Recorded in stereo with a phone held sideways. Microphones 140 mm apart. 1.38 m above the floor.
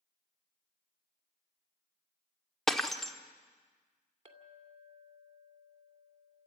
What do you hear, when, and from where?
2.7 s breaking glass: 5° left (ahead or behind), 1.2 m
4.2 s a clink: 40° right (ahead or behind), 2 m